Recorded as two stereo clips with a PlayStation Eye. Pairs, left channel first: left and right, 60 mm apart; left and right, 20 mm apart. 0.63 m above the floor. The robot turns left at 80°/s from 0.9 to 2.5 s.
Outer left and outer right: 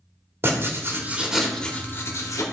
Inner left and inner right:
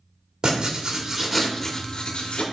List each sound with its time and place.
0.4 s writing: 140° right, 1.4 m; by 2.4 s 100° left, 1.4 m